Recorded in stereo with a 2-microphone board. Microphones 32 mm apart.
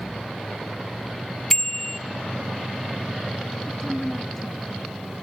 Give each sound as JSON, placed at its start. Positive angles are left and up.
{"t": 1.5, "sound": "a bicycle bell", "side_deg": 15, "distance_m": 2.0}
{"t": 3.7, "sound": "a woman speaking", "side_deg": 10, "distance_m": 1.1}